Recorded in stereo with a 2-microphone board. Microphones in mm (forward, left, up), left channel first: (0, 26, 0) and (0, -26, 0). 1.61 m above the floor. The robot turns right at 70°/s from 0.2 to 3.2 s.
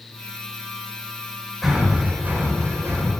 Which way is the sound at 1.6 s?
Centre (ahead or behind).